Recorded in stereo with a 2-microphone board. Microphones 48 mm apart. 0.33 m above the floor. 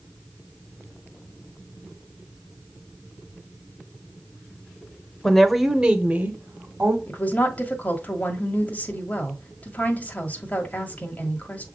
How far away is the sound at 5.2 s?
About 0.9 m.